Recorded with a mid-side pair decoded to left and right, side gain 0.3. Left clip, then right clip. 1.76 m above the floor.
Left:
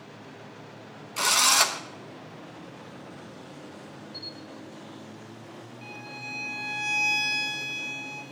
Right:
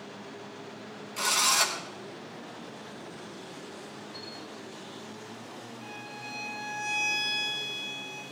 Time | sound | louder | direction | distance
1.2 | a drill | left 4 dB | 65° left | 1.1 m
4.1 | a camera shutter | left 5 dB | 55° left | 5 m
5.8 | a violin | left 4 dB | 65° left | 7 m